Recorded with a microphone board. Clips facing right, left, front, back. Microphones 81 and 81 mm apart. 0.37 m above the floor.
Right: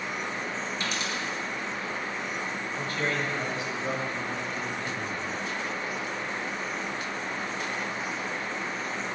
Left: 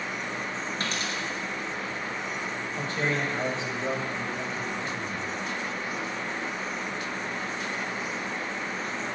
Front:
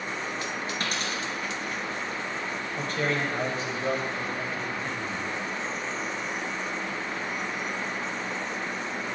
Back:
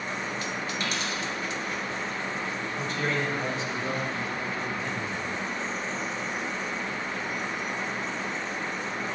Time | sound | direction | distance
0.8 | a dropped coin | 45° left | 2.5 m
2.8 | a man speaking | 30° left | 2 m